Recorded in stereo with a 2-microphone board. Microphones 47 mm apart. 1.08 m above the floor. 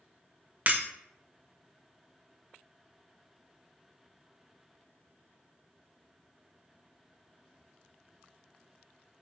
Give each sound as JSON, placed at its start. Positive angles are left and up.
{"t": 0.7, "sound": "breaking glass", "side_deg": -45, "distance_m": 1.3}